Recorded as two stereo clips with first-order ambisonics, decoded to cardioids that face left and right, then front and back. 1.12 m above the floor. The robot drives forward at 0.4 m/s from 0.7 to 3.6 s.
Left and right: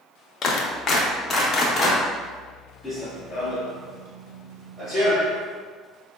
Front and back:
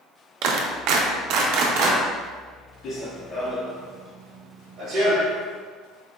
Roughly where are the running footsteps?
Ahead.